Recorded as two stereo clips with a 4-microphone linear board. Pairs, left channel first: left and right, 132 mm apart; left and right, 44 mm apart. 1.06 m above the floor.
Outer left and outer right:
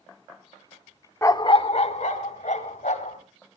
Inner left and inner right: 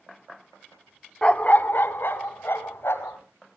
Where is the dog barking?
20° left (ahead or behind), 0.7 m; by 3.2 s 75° left (ahead or behind), 2.5 m.